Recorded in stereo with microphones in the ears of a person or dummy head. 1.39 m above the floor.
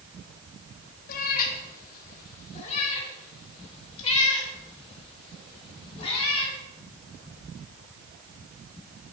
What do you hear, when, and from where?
1.1 s a cat meowing: 50° left (ahead or behind), 1.2 m; by 6.5 s 35° left (ahead or behind), 4.5 m